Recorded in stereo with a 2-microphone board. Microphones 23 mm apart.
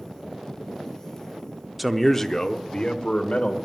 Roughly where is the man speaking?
Centre.